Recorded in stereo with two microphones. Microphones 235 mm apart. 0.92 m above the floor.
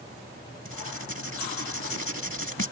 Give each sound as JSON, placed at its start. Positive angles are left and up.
{"t": 0.7, "sound": "writing", "side_deg": 65}